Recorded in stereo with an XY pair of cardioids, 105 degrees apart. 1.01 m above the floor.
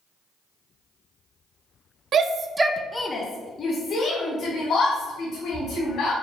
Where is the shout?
60° right, 0.7 m; by 6.1 s 70° left, 3 m.